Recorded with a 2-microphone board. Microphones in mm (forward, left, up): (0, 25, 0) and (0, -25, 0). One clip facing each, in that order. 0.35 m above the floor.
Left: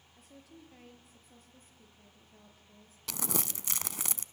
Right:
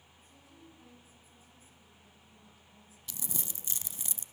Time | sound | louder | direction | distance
0.2 | a woman speaking | left 5 dB | 65° left (ahead or behind) | 7 m
3.1 | crumpling | left 8 dB | 85° left | 0.7 m